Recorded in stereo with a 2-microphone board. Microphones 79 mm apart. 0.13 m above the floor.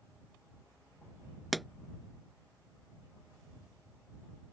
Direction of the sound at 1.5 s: Centre (ahead or behind).